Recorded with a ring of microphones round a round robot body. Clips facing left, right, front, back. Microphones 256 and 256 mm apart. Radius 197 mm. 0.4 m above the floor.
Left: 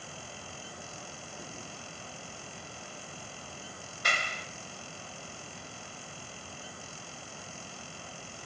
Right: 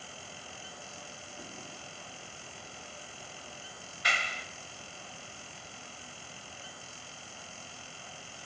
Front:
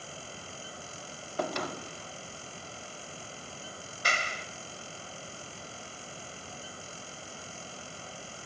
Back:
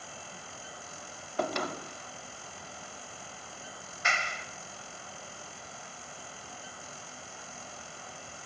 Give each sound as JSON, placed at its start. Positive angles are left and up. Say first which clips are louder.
{"t": 4.0, "sound": "a clap", "louder": "left 2 dB, front 1 dB", "azimuth_deg": 50, "distance_m": 2.5}